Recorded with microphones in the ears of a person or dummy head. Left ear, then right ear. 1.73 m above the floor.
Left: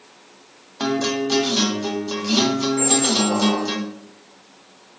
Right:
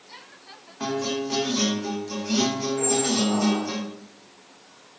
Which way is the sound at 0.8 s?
35° left (ahead or behind).